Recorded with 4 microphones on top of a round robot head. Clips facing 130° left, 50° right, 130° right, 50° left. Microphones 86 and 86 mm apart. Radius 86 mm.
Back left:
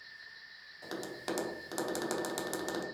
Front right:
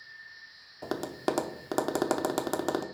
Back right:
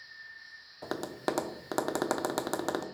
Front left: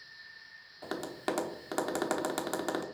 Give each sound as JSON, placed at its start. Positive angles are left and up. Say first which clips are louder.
{"t": 0.8, "sound": "tapping", "louder": "front right 8 dB, back right 2 dB", "azimuth_deg": -65, "distance_m": 0.9}